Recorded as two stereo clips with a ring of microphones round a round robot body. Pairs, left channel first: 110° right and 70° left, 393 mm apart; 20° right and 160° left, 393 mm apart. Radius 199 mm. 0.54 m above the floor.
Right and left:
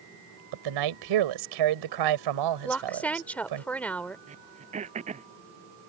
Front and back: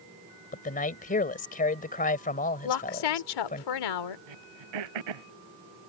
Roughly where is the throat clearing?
Behind left.